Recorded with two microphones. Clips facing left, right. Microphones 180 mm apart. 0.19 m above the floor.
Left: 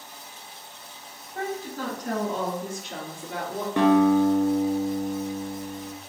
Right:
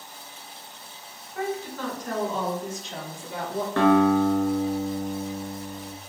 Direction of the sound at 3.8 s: 15° left (ahead or behind).